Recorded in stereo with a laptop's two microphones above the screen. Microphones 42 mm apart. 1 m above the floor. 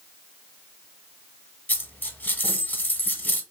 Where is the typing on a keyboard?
I don't hear typing on a keyboard.